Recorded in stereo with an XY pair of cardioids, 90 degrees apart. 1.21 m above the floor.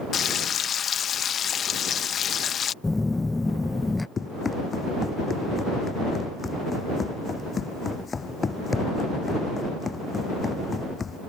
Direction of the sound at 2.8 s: 15° left.